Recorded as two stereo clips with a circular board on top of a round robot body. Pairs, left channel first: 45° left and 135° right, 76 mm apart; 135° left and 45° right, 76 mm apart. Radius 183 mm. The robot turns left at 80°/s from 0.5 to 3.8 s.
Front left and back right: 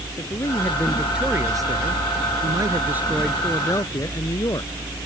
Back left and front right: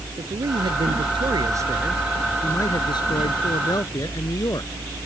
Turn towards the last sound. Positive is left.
turn(degrees=90)